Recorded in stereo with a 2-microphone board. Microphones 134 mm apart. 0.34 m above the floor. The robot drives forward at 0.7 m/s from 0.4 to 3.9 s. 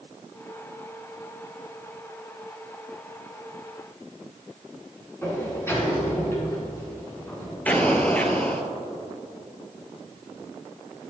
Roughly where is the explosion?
Centre.